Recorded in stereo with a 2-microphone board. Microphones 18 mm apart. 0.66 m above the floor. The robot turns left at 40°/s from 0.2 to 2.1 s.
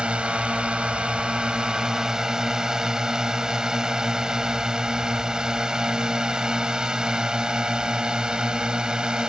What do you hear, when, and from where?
0.0 s a drone: 65° right (ahead or behind); by 9.3 s 45° right (ahead or behind)